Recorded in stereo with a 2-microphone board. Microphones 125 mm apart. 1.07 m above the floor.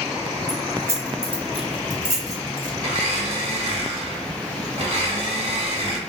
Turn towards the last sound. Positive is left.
turn(degrees=-55)  # may be behind; listen again after turning